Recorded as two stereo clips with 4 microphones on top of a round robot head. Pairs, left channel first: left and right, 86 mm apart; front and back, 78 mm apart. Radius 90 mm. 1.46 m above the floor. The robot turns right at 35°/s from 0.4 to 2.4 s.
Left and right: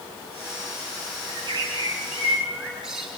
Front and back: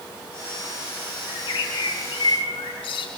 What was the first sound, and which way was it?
A bird, 45° right.